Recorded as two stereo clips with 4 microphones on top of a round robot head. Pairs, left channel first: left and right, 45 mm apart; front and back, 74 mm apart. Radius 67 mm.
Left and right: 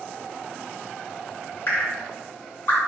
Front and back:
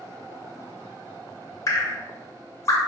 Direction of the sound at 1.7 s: 45° left.